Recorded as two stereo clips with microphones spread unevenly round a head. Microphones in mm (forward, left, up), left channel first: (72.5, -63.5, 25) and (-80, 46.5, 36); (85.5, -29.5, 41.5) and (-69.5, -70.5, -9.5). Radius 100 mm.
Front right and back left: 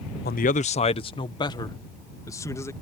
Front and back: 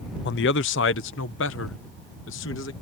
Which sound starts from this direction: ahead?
A man speaking, at 0.2 s.